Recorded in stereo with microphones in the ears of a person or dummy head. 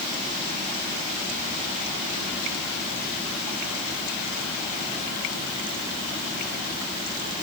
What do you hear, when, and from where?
Only background noise.